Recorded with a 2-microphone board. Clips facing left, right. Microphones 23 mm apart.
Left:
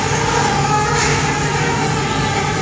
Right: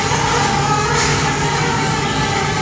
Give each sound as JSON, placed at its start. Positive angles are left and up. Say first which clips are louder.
{"t": 0.0, "sound": "an insect", "louder": "even", "side_deg": -65, "distance_m": 2.0}